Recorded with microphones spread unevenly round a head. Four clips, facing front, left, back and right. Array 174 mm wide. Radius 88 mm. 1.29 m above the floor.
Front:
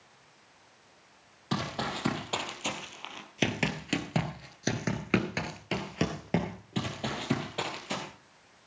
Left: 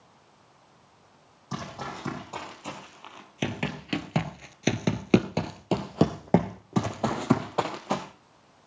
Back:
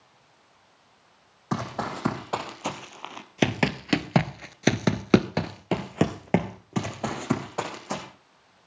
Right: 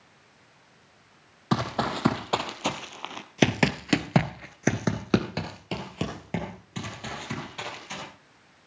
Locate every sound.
1.5 s running footsteps: 100° right, 3.5 m; by 8.0 s 100° left, 3 m